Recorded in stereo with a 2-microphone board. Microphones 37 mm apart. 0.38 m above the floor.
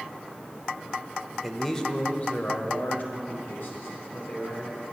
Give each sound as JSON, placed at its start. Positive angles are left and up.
{"t": 1.4, "sound": "a man speaking", "side_deg": 0, "distance_m": 1.2}